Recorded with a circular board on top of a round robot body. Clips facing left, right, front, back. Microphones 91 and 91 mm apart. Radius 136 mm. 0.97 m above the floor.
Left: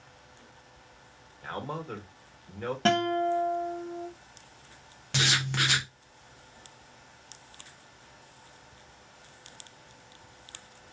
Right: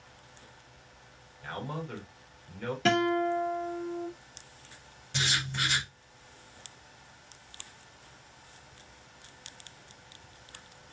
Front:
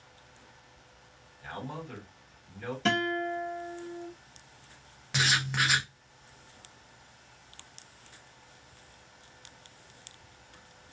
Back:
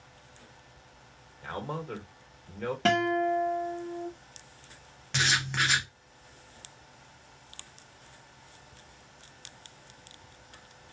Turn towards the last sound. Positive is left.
turn(degrees=85)